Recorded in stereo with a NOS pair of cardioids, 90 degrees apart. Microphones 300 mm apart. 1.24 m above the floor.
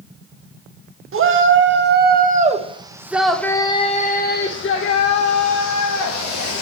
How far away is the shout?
About 1.8 m.